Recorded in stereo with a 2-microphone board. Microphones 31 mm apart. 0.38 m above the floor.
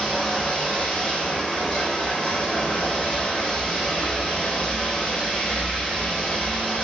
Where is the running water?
20° left (ahead or behind), 7 m.